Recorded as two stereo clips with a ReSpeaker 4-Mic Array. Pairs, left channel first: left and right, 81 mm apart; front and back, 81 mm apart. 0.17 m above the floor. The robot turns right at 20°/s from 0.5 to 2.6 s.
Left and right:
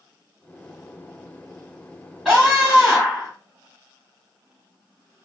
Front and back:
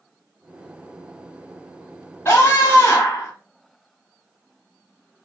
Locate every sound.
2.2 s a scream: 30° right, 1.4 m; by 3.3 s 20° right, 1.4 m